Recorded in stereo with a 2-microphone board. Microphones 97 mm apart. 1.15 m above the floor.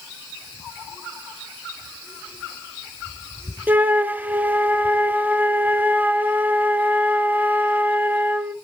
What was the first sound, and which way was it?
A flute, 15° right (ahead or behind).